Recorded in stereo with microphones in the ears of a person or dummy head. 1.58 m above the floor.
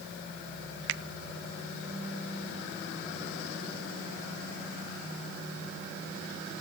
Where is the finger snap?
75° right (ahead or behind), 0.5 m.